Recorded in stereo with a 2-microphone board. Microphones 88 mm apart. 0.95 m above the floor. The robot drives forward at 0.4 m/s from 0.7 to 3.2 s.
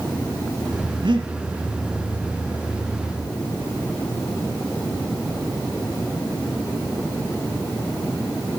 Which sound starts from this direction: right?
Breathing, at 1.0 s.